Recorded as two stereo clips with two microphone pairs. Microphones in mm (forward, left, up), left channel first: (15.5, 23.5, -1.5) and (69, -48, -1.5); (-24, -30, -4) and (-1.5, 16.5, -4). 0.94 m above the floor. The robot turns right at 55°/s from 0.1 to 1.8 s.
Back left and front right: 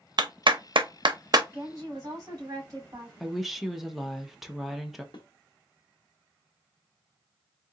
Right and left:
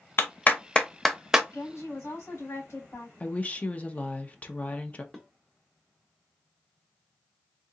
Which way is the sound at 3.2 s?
135° right.